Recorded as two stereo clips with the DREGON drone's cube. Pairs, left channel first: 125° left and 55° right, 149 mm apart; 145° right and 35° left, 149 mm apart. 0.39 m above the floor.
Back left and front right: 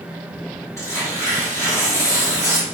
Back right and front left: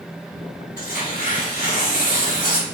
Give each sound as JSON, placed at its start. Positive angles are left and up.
{"t": 0.8, "sound": "tearing paper", "azimuth_deg": -165, "distance_m": 1.3}